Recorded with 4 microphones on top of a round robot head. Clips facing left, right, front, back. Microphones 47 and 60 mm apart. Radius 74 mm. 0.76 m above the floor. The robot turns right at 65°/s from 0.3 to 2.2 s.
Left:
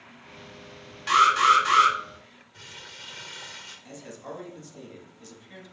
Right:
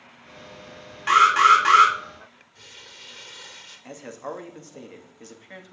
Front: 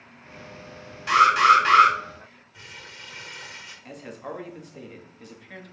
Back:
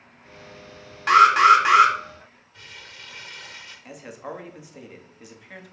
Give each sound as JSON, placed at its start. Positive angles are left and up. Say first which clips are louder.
{"t": 1.1, "sound": "an alarm", "louder": "right 3 dB, back 3 dB", "azimuth_deg": -145, "distance_m": 1.9}
{"t": 2.5, "sound": "crumpling", "louder": "left 3 dB, even", "azimuth_deg": 80, "distance_m": 2.0}
{"t": 3.9, "sound": "a man speaking", "louder": "right 7 dB, even", "azimuth_deg": -100, "distance_m": 1.3}